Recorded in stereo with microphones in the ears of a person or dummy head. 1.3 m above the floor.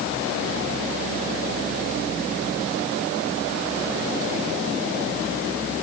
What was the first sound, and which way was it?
Only background noise.